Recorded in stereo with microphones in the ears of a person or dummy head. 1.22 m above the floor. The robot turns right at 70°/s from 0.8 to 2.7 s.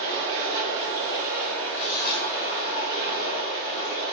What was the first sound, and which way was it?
Running water, 50° right.